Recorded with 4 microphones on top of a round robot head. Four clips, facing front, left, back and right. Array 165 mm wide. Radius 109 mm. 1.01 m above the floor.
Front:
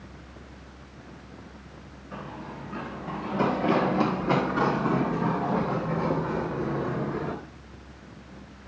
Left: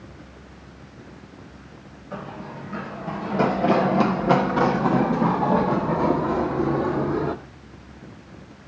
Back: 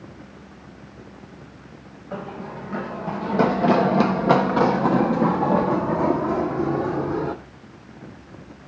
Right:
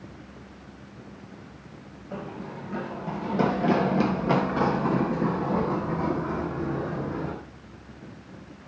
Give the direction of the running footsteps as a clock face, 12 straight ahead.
5 o'clock.